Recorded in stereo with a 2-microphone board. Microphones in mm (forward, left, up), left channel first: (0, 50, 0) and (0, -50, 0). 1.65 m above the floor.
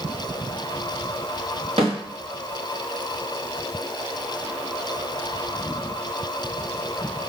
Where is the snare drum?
70° right (ahead or behind), 4 m.